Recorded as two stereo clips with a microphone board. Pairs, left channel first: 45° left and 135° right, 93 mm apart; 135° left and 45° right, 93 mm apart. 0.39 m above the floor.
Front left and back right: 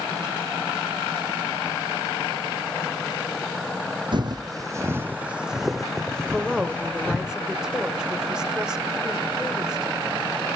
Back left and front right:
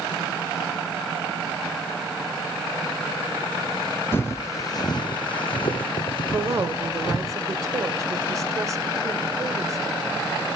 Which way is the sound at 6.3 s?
55° right.